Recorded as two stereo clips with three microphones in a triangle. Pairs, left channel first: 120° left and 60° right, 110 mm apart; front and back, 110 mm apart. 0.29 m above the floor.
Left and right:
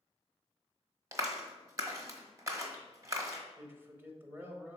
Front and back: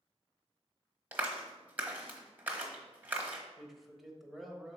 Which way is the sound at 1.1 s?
110° right.